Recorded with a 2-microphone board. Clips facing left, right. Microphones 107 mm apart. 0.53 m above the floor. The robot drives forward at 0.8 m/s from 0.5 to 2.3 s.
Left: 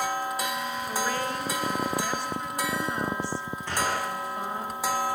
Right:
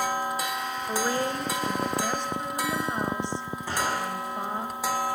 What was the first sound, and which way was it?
A woman speaking, 30° right (ahead or behind).